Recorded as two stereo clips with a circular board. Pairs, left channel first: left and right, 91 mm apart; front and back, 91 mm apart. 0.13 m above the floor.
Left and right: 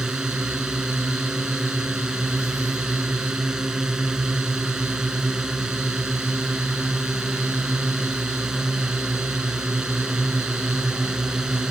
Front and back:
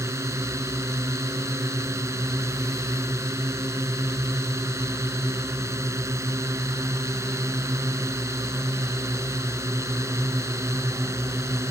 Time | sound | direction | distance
0.0 | a drone | 165° right | ?